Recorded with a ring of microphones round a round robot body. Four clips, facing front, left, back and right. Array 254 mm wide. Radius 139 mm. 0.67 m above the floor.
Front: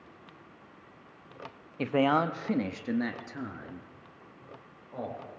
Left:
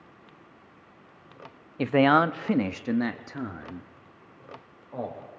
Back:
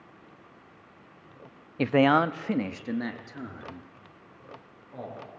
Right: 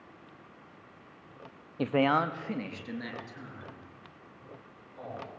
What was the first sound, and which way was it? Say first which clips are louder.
A man speaking: left 6 dB, back 4 dB; 160° left.